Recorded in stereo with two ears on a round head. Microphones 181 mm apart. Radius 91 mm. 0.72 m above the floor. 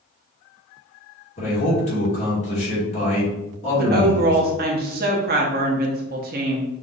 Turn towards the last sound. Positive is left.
turn(degrees=-50)  # may be behind; listen again after turning